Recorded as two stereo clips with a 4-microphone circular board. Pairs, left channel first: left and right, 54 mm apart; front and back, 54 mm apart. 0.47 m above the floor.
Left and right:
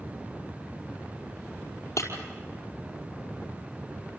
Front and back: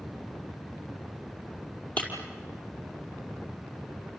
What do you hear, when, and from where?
2.0 s breaking glass: 60° left, 5 m